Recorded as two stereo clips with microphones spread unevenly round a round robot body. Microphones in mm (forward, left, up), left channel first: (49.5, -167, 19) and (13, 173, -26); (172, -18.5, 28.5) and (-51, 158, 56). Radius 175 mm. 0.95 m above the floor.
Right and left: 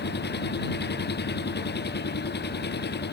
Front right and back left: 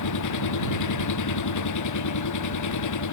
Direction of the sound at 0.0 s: 20° right.